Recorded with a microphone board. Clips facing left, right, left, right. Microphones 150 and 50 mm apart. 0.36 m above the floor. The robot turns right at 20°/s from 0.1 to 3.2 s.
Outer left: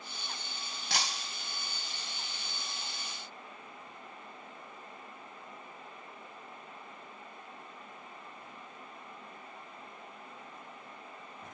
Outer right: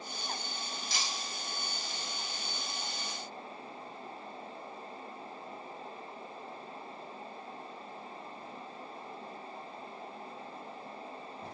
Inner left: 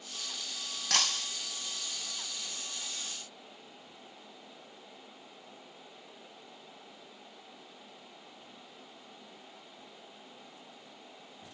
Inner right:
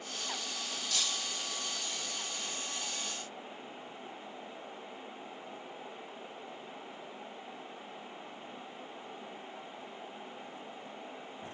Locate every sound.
0.9 s breaking glass: 60° left (ahead or behind), 1.2 m; by 1.3 s 65° left (ahead or behind), 1.2 m